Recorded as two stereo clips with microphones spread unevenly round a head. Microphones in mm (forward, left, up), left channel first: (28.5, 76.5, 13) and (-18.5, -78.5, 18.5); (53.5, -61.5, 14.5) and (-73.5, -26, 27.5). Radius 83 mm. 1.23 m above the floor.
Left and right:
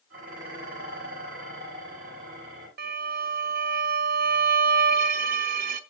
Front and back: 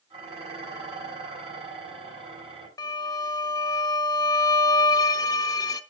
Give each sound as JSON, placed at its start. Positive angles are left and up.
{"t": 0.1, "sound": "dishes clattering", "azimuth_deg": -150, "distance_m": 6.5}
{"t": 2.8, "sound": "a violin", "azimuth_deg": -80, "distance_m": 0.8}